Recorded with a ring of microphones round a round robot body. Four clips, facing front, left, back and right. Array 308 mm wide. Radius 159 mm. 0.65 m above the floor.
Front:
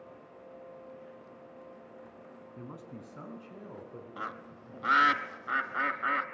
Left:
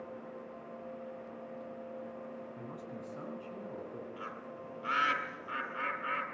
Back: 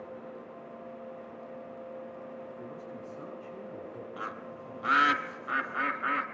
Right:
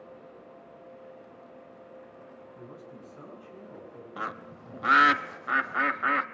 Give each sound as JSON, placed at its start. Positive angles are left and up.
{"t": 2.6, "sound": "a man speaking", "azimuth_deg": 20, "distance_m": 7.0}
{"t": 4.2, "sound": "a bird", "azimuth_deg": -85, "distance_m": 1.1}